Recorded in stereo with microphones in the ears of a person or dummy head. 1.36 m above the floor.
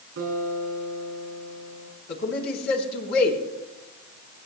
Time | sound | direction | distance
0.2 | a guitar | 70° right (ahead or behind) | 5 m
2.1 | a man speaking | 55° left (ahead or behind) | 3.5 m